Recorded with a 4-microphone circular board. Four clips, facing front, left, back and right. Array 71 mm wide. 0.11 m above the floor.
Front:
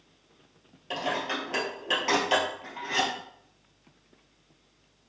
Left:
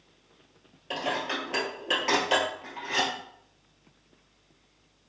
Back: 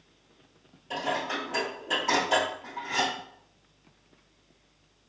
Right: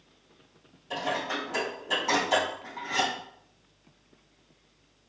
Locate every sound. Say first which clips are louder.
0.9 s dishes clattering: even, even; 55° left, 1.7 m